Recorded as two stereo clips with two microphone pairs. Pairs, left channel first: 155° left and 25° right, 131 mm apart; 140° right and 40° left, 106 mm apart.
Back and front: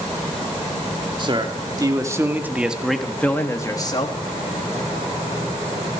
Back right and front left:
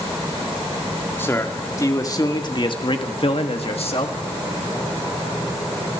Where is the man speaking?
70° right, 2.5 m; by 4.2 s 155° right, 1.9 m.